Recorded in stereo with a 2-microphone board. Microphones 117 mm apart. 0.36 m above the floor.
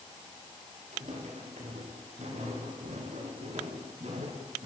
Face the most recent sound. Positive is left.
turn(degrees=-65)  # may be behind; listen again after turning